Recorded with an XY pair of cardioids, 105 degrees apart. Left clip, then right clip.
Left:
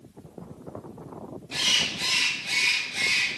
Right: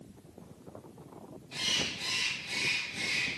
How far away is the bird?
About 1.4 m.